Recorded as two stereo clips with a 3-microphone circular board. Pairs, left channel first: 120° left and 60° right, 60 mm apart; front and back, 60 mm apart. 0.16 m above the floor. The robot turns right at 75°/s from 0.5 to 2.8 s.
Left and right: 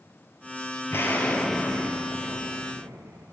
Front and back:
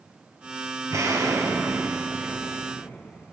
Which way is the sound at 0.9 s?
160° left.